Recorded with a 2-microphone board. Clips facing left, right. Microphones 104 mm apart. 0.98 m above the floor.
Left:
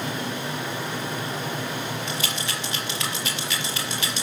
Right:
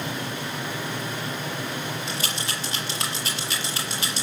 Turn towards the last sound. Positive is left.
turn(degrees=-35)  # may be behind; listen again after turning